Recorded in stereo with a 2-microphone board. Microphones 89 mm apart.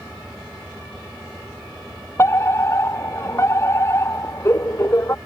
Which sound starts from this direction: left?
A fire alarm, at 2.2 s.